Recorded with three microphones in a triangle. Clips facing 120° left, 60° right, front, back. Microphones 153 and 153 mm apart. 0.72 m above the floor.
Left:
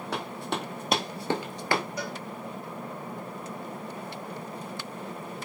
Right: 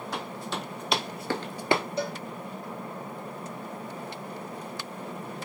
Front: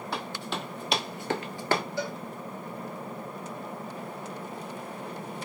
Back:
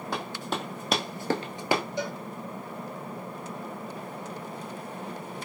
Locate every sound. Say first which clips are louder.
0.1 s running footsteps: left 3 dB, back 2 dB; 135° left, 2 m; by 1.8 s 95° right, 0.8 m
2.0 s a cowbell: right 4 dB, back 1 dB; 115° right, 0.6 m